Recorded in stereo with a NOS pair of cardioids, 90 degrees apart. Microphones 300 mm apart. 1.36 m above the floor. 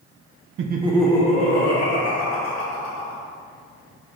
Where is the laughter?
45° right, 0.6 m; by 3.2 s 55° left, 2.5 m.